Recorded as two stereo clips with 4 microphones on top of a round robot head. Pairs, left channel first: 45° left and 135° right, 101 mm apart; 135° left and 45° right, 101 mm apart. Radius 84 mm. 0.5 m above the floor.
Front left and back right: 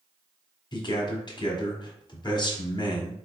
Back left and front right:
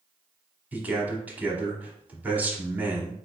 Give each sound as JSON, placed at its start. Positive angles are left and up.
{"t": 0.7, "sound": "a man speaking", "azimuth_deg": 25, "distance_m": 1.1}